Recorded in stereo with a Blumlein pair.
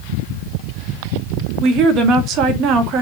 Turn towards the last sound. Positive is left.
turn(degrees=-35)